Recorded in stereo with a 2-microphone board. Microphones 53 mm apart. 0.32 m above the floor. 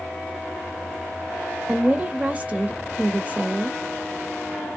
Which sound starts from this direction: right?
A woman speaking, at 1.7 s.